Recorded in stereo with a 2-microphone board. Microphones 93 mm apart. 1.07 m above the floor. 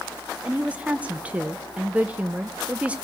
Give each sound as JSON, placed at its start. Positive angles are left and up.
{"t": 0.5, "sound": "a woman speaking", "side_deg": -15, "distance_m": 0.6}